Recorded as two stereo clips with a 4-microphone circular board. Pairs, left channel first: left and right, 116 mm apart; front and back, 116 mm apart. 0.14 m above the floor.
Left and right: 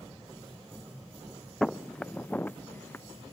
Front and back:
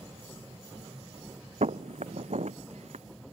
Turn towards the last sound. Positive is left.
turn(degrees=165)